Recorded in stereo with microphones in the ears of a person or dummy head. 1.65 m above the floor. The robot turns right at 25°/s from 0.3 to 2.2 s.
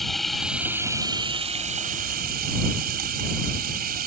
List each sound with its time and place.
0.0 s running water: 175° left; by 4.1 s 135° right